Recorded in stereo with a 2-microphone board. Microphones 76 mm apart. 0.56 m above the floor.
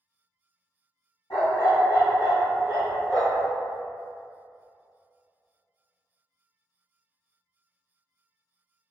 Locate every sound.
1.3 s a dog barking: 90° left, 1.5 m